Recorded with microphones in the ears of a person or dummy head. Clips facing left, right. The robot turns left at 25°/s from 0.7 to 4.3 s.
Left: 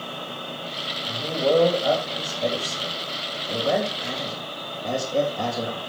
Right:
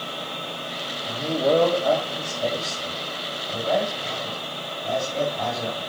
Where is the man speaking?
175° right, 3.5 m; by 5.8 s 105° left, 3.5 m.